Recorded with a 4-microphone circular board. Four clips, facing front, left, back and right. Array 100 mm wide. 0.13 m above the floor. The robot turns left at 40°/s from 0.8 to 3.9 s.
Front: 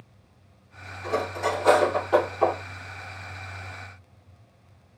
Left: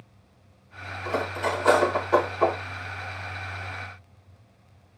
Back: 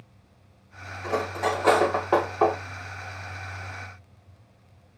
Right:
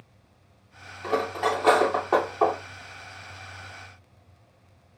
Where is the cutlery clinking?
105° right, 2.5 m; by 2.6 s 170° right, 2.5 m.